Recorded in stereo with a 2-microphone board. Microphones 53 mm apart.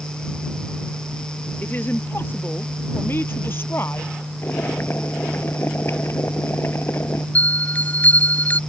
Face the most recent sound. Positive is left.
turn(degrees=30)  # may be behind; listen again after turning